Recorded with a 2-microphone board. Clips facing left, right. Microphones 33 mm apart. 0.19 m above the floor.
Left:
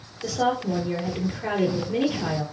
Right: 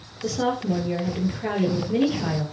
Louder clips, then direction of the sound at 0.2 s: Even; centre (ahead or behind).